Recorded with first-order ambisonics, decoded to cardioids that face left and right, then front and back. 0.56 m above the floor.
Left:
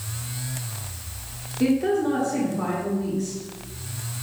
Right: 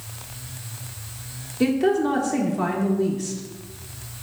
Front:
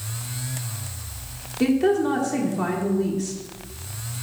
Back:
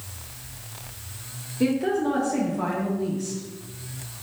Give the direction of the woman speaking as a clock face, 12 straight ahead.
2 o'clock.